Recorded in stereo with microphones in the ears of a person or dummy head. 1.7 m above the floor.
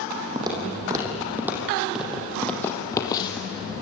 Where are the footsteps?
30° right (ahead or behind), 5.5 m; by 3.5 s 25° left (ahead or behind), 3.5 m.